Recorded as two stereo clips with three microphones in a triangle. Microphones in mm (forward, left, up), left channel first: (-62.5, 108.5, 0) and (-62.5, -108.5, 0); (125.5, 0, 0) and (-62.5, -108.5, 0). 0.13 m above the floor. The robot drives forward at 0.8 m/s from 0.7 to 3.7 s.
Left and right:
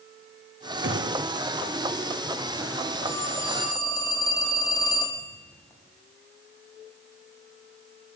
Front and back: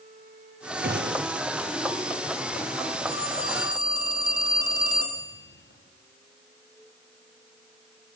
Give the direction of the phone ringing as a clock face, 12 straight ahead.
12 o'clock.